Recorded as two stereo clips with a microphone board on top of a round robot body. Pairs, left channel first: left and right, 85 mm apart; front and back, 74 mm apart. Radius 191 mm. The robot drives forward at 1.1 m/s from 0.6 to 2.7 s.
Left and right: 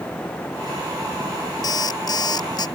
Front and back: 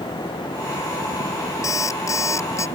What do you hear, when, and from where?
1.6 s an alarm clock: 45° left; by 2.7 s 50° left